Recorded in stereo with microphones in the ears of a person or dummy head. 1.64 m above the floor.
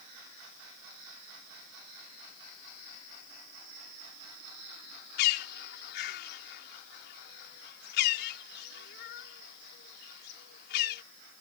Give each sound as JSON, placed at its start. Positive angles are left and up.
{"t": 5.2, "sound": "a bird", "side_deg": 65}